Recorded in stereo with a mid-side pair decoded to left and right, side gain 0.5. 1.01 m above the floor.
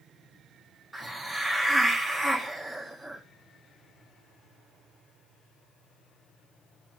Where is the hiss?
Straight ahead, 1.4 m.